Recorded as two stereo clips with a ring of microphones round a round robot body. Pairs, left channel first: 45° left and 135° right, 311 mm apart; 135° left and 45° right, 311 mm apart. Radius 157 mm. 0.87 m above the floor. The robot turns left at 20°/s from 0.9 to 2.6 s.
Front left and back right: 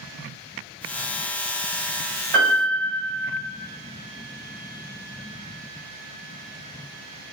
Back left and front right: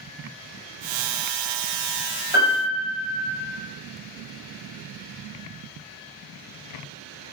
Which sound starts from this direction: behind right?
A piano, at 2.3 s.